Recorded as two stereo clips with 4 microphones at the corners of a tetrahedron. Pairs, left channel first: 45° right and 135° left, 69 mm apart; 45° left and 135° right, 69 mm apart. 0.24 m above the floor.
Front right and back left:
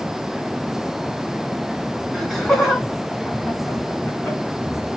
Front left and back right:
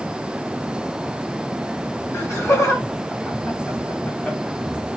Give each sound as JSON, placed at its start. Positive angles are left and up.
{"t": 2.1, "sound": "laughter", "azimuth_deg": 45, "distance_m": 1.9}